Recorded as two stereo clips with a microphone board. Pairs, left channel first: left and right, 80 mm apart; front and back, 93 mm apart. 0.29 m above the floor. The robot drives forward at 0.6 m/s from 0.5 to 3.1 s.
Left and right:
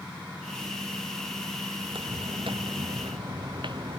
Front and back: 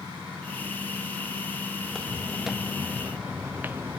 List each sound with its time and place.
1.8 s footsteps: 85° right; by 4.0 s 115° right